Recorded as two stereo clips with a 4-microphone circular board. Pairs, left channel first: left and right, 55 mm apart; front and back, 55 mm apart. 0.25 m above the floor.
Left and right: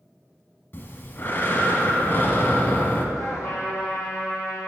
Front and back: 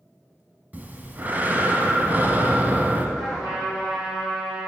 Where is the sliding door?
I don't hear a sliding door.